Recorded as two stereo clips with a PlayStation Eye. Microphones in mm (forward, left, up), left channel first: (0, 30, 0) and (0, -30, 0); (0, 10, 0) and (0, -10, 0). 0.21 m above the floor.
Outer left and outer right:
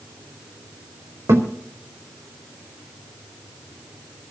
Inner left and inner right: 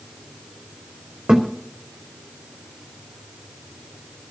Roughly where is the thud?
Right.